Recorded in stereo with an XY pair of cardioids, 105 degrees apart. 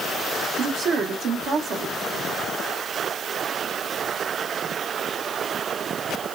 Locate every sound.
0.6 s a woman speaking: 70° right, 0.9 m